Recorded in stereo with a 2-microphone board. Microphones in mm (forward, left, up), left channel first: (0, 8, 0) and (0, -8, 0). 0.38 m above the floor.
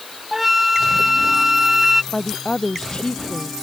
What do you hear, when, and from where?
0.3 s a flute: 20° right (ahead or behind)
2.1 s a woman speaking: 60° left (ahead or behind)